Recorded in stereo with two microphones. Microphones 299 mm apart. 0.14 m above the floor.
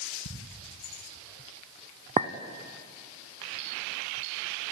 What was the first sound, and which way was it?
Ticking, 75° left (ahead or behind).